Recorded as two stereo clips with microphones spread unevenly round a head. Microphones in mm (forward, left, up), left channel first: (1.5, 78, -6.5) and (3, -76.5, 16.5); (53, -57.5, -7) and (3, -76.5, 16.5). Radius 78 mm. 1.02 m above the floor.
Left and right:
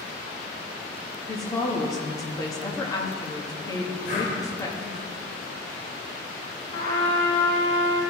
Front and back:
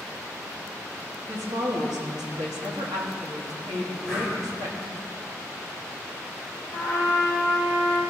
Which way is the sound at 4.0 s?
130° left.